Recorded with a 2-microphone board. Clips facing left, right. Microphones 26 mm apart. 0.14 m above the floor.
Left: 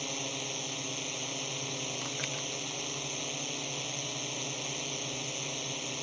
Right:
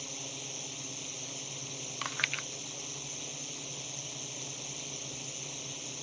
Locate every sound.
0.0 s a drone: 40° left (ahead or behind)
2.0 s chewing: 40° right (ahead or behind)